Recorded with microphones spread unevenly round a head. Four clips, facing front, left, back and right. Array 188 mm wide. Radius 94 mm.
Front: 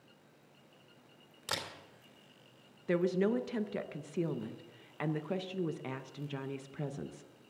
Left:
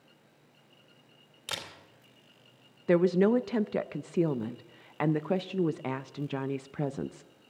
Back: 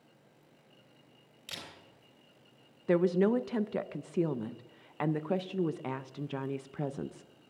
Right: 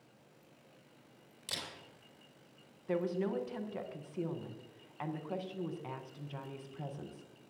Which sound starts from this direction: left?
A woman speaking, at 2.9 s.